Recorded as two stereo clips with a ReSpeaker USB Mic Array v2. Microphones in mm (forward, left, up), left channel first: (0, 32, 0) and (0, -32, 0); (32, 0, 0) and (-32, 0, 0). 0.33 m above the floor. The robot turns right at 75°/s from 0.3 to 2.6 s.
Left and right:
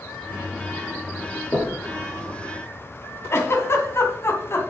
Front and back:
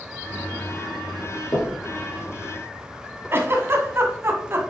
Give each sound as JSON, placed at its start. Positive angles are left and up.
{"t": 1.5, "sound": "knocking", "azimuth_deg": 30, "distance_m": 3.5}
{"t": 3.3, "sound": "a giggle", "azimuth_deg": 135, "distance_m": 2.0}